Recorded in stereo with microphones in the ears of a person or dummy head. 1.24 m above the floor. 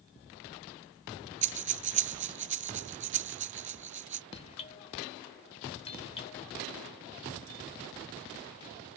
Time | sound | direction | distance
1.4 | breathing | 35° right (ahead or behind) | ?
4.3 | a doorbell | 35° left (ahead or behind) | ?